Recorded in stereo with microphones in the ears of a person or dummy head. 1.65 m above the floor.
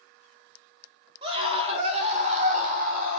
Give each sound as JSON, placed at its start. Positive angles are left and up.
{"t": 1.2, "sound": "a scream", "side_deg": -35, "distance_m": 2.5}